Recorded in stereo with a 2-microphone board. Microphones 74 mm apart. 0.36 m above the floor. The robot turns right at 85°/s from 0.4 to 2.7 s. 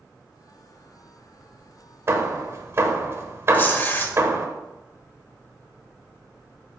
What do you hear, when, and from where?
2.1 s hammering: 35° right (ahead or behind), 0.9 m
3.5 s tearing paper: 25° left (ahead or behind), 0.9 m